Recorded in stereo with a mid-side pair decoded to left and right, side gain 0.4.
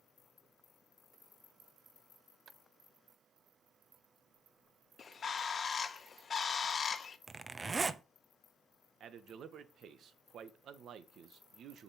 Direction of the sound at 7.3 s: 30° right.